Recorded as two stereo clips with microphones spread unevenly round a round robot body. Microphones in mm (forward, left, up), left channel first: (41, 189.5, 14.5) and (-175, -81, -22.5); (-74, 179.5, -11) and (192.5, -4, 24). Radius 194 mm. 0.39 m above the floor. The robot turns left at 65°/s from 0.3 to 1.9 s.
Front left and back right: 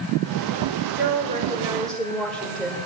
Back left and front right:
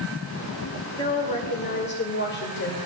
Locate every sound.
1.0 s a woman speaking: 155° right, 1.7 m; by 2.8 s 145° left, 1.7 m